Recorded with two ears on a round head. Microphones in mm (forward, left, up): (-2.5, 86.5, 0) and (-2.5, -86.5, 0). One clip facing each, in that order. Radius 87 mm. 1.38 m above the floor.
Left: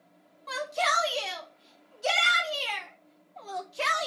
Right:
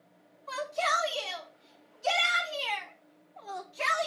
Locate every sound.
0.5 s a shout: 80° left, 3 m; by 4.1 s 50° left (ahead or behind), 1.9 m